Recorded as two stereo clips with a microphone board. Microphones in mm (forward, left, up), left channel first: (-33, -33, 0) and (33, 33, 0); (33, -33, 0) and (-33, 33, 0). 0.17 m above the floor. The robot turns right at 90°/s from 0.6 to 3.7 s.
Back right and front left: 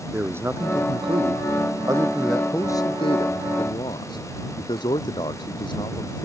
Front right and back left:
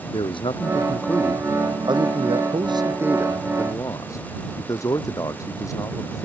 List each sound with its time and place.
0.1 s a man speaking: 20° right; by 6.3 s 100° right